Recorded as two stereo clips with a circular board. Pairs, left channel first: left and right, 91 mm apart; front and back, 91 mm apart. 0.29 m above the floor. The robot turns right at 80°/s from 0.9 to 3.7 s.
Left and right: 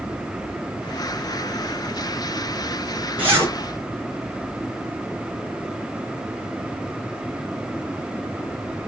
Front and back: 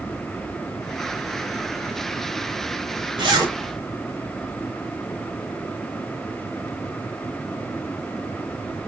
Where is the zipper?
165° right, 2.5 m; by 3.5 s 135° right, 2.5 m.